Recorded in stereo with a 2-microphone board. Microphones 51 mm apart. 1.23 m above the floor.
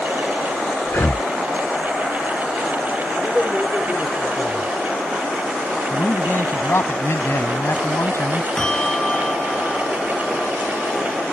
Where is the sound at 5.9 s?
60° left (ahead or behind).